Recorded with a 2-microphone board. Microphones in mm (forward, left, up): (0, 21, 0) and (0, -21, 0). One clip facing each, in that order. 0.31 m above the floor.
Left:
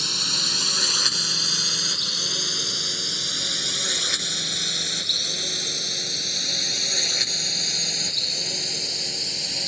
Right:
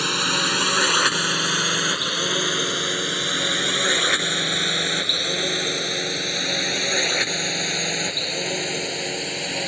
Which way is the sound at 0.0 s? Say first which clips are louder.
Right 6 dB; 40° right (ahead or behind).